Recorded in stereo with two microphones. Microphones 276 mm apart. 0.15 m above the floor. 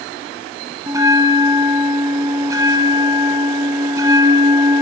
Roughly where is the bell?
Centre.